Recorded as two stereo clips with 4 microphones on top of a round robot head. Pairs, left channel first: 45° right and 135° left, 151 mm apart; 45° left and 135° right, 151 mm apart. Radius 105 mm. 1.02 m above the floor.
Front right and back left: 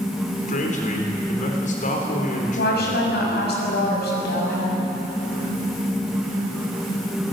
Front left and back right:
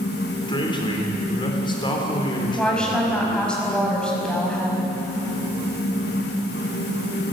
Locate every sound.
0.5 s a man speaking: 10° right, 4 m
2.6 s a woman speaking: 35° right, 6 m